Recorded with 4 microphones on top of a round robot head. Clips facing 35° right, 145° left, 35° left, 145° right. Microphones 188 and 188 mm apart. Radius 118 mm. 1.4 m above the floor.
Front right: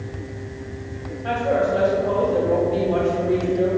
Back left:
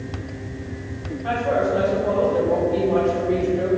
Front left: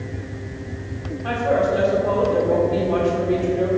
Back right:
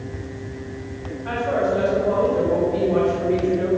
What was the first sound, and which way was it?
A woman speaking, 50° left.